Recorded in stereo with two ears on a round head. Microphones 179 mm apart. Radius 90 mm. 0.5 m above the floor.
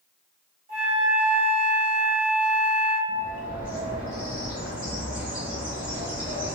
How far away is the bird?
About 1.0 m.